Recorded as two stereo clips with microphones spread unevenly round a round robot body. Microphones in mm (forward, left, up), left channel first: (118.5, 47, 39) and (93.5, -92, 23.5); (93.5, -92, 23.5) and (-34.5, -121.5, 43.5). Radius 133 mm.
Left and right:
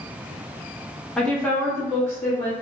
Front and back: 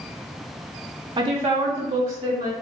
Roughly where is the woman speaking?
Behind.